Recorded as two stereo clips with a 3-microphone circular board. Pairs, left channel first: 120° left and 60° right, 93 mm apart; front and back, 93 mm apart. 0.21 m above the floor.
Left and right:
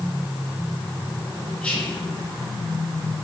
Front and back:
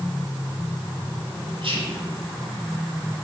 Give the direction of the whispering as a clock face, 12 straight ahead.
6 o'clock.